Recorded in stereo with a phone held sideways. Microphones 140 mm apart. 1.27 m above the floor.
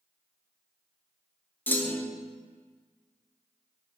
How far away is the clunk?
About 0.8 m.